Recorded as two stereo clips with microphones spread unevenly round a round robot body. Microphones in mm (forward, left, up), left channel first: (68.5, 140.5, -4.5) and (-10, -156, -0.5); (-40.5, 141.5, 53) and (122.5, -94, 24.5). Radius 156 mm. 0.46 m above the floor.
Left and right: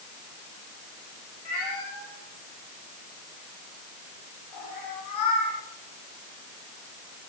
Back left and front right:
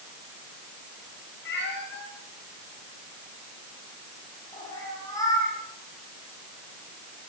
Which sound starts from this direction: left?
A cat meowing, at 1.4 s.